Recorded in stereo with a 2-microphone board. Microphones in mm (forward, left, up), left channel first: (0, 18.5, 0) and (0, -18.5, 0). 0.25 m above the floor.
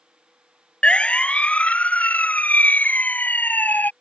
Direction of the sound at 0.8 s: 35° left (ahead or behind).